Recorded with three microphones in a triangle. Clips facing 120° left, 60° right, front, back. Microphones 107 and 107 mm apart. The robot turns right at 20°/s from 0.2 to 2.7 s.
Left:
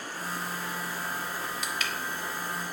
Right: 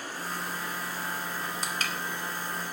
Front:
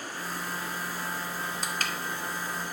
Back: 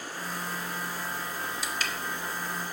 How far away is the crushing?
About 1.9 m.